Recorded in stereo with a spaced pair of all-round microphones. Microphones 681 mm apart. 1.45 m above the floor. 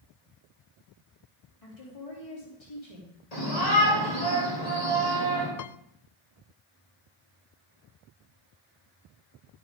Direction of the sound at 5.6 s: 65° left (ahead or behind).